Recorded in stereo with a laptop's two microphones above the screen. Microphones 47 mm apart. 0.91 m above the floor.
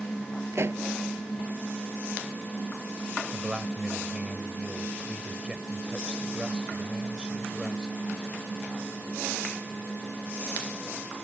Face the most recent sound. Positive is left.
turn(degrees=-20)  # may be behind; listen again after turning